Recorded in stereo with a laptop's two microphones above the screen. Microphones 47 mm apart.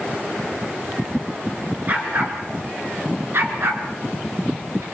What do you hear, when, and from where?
1.9 s a dog barking: 40° right (ahead or behind), 4 m; by 4.8 s 80° right, 4.5 m